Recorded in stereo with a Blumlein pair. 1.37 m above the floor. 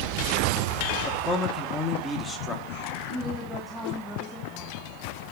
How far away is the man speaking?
About 1.6 m.